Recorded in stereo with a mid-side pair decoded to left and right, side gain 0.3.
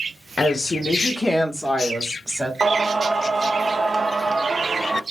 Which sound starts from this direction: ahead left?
A woman speaking, at 0.4 s.